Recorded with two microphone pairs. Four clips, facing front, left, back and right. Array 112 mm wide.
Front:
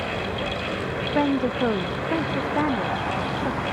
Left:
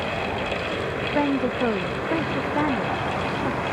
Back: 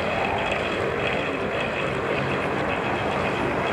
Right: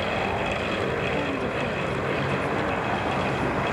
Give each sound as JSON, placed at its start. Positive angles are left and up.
{"t": 1.1, "sound": "a woman speaking", "azimuth_deg": 35}